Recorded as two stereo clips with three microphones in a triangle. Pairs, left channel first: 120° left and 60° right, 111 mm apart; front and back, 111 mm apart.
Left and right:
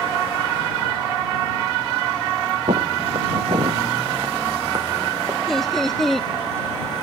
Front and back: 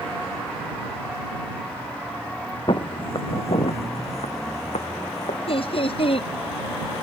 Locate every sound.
2.7 s footsteps: 40° right; by 5.4 s straight ahead
5.5 s laughter: 30° left